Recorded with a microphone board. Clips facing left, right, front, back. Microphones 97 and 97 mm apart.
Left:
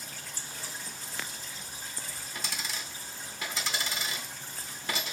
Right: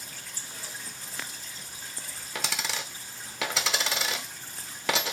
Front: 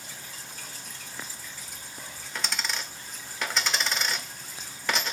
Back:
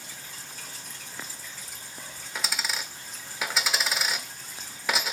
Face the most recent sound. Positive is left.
turn(degrees=-95)